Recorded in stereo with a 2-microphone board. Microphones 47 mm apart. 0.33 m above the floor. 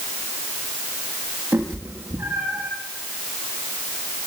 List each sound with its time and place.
1.5 s a cat meowing: 70° right (ahead or behind), 8.5 m